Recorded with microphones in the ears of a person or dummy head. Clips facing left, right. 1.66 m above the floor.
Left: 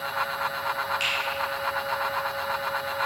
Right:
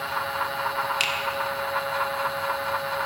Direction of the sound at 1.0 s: 70° right (ahead or behind).